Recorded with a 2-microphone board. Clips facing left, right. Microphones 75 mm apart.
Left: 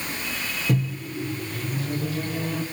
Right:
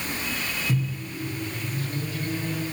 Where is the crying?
No crying in this recording.